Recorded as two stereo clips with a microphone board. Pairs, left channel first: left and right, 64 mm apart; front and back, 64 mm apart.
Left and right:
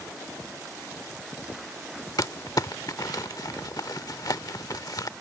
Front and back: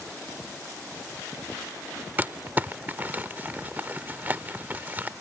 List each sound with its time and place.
2.2 s crumpling: 115° left